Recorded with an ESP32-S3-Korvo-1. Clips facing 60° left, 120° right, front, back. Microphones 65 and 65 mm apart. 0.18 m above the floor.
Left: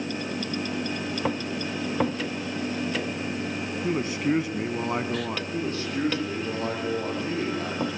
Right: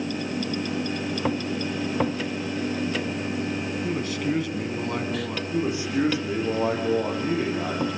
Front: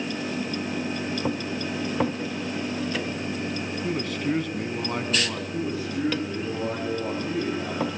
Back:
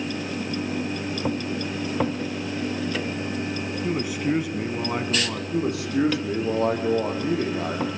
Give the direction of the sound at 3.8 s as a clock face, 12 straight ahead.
8 o'clock.